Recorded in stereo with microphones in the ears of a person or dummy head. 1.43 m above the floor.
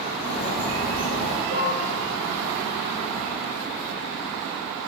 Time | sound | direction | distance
0.2 | a bird | 35° left (ahead or behind) | 1.0 m
1.5 | dishes clattering | 40° right (ahead or behind) | 0.6 m